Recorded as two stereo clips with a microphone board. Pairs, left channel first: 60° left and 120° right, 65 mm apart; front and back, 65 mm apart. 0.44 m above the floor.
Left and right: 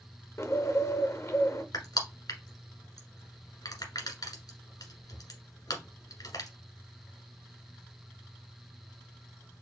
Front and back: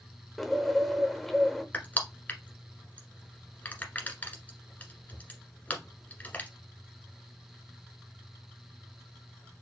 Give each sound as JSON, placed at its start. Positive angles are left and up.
{"t": 0.4, "sound": "a bird", "azimuth_deg": 85, "distance_m": 0.7}
{"t": 1.7, "sound": "crushing", "azimuth_deg": 60, "distance_m": 1.4}